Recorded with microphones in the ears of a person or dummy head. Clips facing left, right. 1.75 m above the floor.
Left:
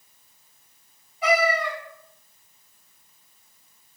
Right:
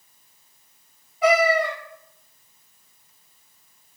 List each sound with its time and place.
1.2 s a cat meowing: 40° right (ahead or behind), 1.3 m